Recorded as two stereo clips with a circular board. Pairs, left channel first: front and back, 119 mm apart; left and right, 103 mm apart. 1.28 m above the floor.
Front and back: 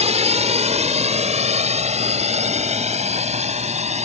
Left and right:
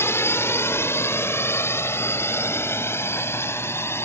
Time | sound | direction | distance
0.0 | a drone | 155° left | ?